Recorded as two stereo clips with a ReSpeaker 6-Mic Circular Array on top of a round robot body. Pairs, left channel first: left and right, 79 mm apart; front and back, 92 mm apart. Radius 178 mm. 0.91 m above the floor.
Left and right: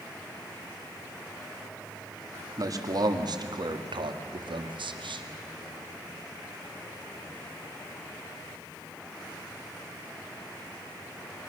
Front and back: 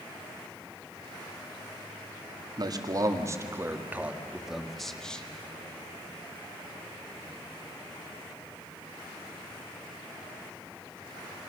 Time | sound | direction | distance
2.6 | a man speaking | 135° right | 1.9 m